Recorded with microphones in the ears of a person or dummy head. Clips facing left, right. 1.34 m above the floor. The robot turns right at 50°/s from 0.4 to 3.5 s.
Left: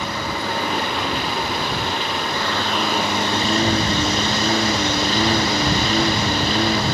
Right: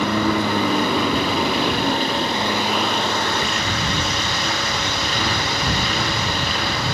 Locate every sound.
0.0 s a lawn mower: 55° right (ahead or behind); by 6.9 s 30° left (ahead or behind)